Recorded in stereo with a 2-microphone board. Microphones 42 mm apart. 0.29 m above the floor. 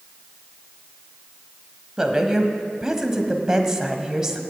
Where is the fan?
No fan in this recording.